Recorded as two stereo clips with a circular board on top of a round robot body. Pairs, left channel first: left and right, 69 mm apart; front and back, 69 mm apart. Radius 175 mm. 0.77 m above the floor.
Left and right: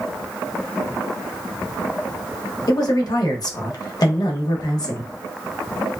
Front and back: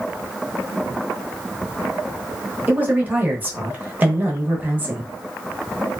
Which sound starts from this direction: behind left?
A man speaking, at 2.7 s.